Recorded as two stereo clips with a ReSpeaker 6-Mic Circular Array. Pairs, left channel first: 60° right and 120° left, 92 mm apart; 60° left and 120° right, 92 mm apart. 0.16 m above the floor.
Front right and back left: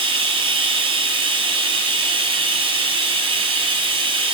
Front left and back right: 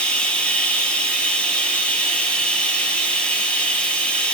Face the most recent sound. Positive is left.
turn(degrees=135)